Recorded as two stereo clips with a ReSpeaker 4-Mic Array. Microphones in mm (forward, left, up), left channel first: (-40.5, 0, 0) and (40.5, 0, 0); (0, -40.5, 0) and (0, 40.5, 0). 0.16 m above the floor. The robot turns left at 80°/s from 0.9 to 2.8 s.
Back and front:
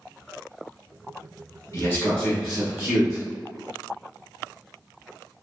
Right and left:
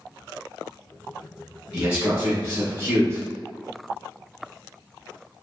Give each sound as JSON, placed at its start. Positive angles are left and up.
{"t": 1.7, "sound": "a man speaking", "azimuth_deg": 165, "distance_m": 1.6}